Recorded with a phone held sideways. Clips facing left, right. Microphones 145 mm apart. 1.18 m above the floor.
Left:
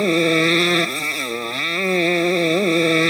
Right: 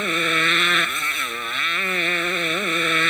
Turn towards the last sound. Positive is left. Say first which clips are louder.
# left 9 dB
turn(degrees=35)  # may be behind; listen again after turning